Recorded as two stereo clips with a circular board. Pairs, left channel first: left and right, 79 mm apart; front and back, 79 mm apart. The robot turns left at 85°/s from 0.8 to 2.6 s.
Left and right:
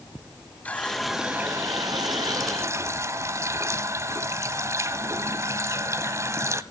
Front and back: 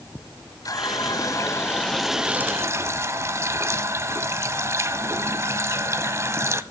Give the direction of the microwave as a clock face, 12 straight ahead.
No microwave in this recording.